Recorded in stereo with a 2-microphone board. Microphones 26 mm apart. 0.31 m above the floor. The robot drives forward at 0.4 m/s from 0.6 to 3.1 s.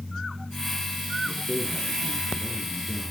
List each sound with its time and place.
1.2 s a man speaking: 15° right (ahead or behind), 4 m